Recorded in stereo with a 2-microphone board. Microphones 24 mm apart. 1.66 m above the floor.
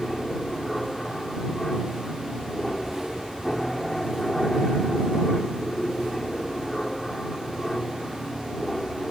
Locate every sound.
0.0 s an aircraft: 10° left (ahead or behind)